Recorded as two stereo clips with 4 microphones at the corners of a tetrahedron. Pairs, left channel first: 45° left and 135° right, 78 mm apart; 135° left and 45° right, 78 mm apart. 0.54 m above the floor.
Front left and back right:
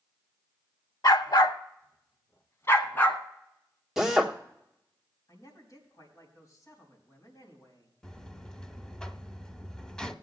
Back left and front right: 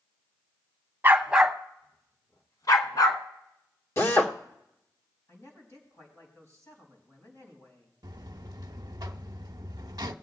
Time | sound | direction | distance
1.0 | a dog barking | 15° left | 0.9 m
4.0 | a drill | 145° left | 1.3 m
5.3 | a man speaking | 85° left | 4 m
8.0 | a buzzer | 35° right | 0.6 m